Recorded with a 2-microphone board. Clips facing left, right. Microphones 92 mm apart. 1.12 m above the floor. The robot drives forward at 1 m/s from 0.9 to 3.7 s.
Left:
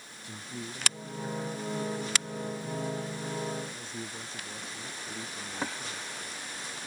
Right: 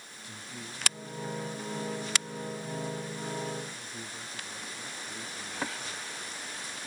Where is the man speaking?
35° left (ahead or behind); by 6.1 s 30° left (ahead or behind).